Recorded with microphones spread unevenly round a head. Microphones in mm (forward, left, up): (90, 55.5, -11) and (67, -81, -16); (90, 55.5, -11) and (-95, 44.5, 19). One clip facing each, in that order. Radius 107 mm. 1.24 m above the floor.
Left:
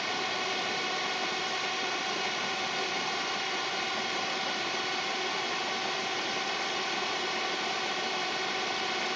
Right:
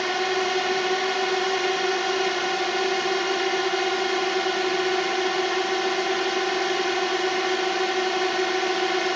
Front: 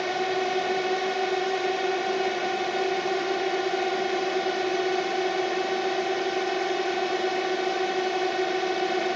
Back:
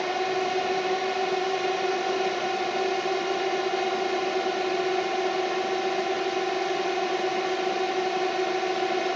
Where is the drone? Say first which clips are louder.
Right 10 dB, even; 85° right.